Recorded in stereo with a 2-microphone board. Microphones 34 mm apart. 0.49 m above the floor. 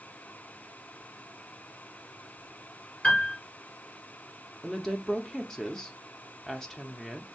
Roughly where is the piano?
Left.